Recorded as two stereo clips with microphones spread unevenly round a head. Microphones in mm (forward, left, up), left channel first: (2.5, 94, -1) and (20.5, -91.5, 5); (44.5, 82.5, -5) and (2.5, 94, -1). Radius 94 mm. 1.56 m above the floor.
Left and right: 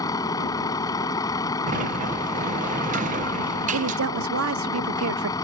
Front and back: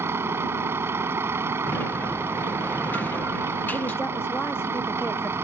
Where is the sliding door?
60° right.